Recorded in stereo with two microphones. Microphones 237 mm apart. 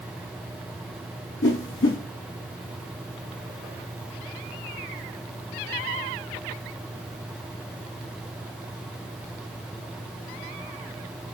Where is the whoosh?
60° left (ahead or behind), 0.6 m.